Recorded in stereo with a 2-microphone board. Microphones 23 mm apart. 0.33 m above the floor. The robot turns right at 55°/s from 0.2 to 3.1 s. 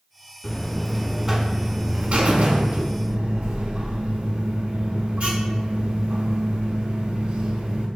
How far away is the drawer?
No drawer in this recording.